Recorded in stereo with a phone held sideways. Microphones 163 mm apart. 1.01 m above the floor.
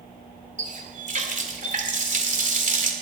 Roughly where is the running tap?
Right.